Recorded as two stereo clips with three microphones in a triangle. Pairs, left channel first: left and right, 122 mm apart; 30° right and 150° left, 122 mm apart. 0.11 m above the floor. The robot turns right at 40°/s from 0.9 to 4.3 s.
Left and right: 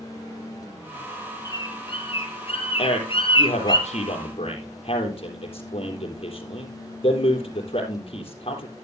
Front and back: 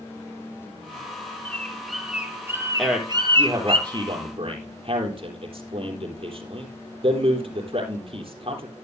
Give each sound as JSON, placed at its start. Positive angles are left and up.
{"t": 1.4, "sound": "a bird", "azimuth_deg": 40, "distance_m": 1.9}
{"t": 2.8, "sound": "a man speaking", "azimuth_deg": 60, "distance_m": 3.5}